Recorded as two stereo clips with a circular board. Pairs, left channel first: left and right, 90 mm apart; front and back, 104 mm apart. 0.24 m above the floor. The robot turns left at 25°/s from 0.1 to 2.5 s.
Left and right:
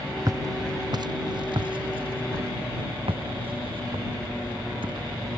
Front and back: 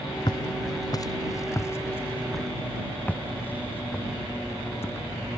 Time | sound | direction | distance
0.3 | footsteps | 45° right | ?